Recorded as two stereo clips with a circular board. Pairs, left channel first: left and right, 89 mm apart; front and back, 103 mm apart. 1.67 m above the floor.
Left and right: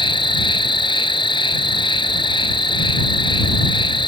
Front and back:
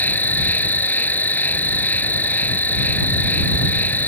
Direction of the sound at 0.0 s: 75° left.